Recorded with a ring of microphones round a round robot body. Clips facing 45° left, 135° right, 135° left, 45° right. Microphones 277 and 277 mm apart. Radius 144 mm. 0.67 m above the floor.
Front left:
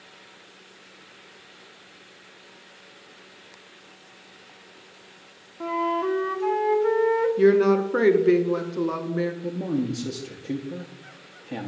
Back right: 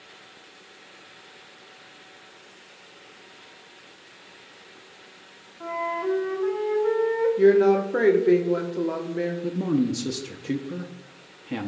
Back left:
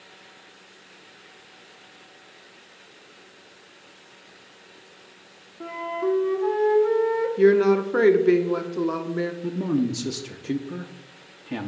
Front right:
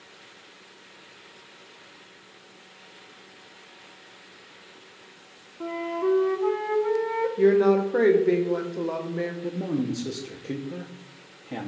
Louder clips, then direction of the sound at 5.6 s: Front left 4 dB, front right 1 dB; 35° left.